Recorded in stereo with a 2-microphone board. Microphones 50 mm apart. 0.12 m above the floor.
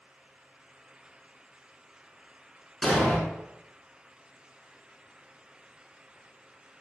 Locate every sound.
2.8 s an explosion: 10° left (ahead or behind), 0.7 m